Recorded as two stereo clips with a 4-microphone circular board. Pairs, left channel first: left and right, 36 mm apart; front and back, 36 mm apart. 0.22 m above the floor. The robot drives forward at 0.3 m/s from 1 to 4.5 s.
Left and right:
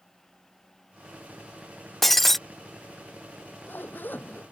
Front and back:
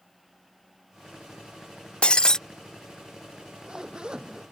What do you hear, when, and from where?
2.0 s breaking glass: 10° left; by 2.4 s 20° left
3.3 s a zipper: 115° left